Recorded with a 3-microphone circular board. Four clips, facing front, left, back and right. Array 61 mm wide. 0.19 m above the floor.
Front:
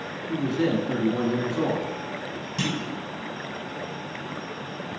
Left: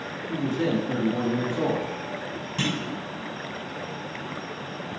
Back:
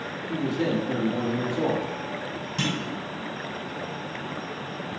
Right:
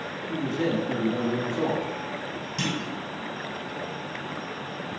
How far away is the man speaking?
About 1.9 m.